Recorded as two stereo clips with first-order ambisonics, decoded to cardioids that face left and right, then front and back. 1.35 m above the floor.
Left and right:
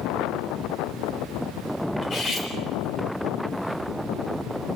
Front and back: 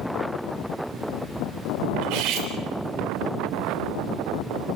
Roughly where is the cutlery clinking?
Behind.